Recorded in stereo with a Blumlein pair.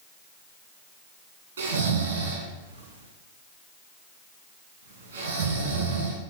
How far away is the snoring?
About 2.5 m.